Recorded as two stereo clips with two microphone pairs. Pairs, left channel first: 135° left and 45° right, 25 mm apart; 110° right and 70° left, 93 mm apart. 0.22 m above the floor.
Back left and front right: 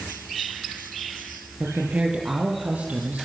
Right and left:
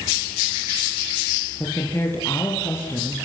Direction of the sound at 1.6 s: 45° right.